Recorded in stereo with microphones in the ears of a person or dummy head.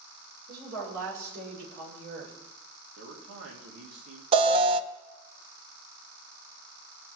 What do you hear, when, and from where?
0.5 s a woman speaking: 60° right (ahead or behind), 7 m
3.0 s a man speaking: 80° right, 3 m
4.3 s an alarm: 25° right (ahead or behind), 0.6 m